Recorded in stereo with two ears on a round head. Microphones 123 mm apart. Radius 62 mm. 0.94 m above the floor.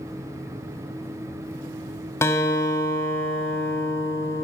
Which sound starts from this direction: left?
A guitar, at 2.2 s.